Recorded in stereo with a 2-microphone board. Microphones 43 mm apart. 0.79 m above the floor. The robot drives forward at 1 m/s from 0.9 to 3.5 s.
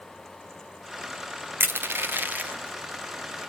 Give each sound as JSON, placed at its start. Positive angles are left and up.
{"t": 1.6, "sound": "crushing", "side_deg": -55, "distance_m": 1.0}